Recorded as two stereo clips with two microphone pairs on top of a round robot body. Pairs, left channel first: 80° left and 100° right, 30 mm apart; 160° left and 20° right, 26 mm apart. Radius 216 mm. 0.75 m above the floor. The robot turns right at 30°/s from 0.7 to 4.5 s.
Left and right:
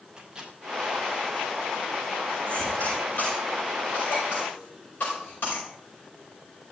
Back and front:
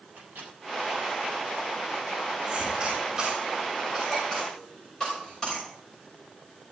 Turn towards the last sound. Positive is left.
turn(degrees=90)